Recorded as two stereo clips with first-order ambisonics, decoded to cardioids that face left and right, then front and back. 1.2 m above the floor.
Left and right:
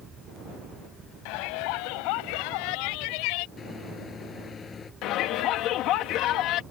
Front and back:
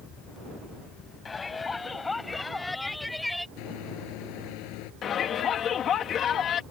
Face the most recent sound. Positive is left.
turn(degrees=55)